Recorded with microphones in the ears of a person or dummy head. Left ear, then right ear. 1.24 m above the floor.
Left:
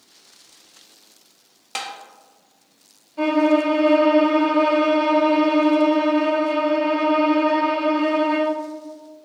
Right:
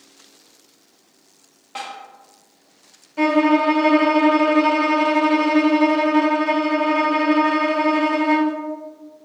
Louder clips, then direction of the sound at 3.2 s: Right 2 dB; 60° right (ahead or behind).